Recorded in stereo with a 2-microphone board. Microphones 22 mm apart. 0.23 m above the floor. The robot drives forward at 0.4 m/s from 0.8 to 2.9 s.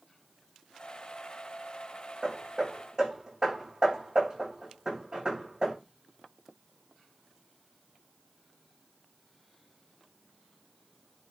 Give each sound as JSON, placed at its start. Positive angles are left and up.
{"t": 2.2, "sound": "hammering", "side_deg": -35, "distance_m": 7.0}